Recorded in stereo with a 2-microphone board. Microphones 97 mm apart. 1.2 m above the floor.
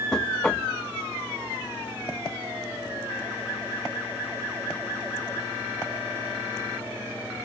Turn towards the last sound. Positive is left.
turn(degrees=10)  # may be behind; listen again after turning